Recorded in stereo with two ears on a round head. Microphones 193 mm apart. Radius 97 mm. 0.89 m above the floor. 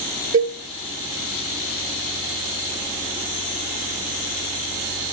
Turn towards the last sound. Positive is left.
turn(degrees=-55)  # may be behind; listen again after turning